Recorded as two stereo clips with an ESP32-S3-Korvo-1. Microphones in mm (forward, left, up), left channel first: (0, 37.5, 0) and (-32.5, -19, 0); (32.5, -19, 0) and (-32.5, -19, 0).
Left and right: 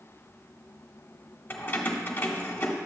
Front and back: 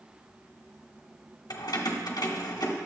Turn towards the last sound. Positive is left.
turn(degrees=5)